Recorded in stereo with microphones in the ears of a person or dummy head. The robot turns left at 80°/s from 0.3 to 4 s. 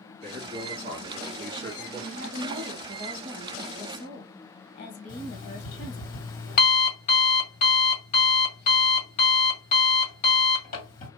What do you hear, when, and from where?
0.2 s a man speaking: 25° right, 1.6 m; by 2.0 s 160° right, 1.6 m
2.1 s a woman speaking: 80° right, 1.0 m; by 6.1 s 130° left, 1.0 m
5.1 s an alarm clock: 50° left (ahead or behind), 2 m